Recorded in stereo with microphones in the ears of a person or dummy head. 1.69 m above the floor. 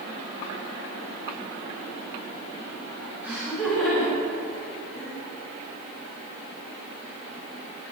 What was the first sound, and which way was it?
Laughter, 5° right (ahead or behind).